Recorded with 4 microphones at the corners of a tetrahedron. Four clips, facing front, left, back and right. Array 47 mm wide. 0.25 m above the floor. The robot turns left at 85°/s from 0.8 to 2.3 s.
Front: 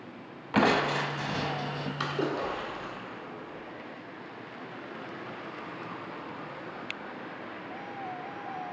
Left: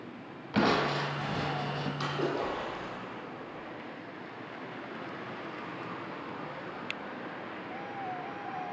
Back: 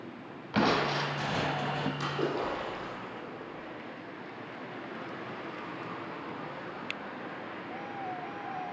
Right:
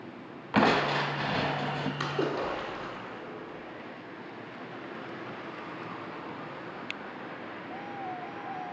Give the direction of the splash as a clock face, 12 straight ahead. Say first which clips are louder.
Right 1 dB, front 5 dB; 1 o'clock.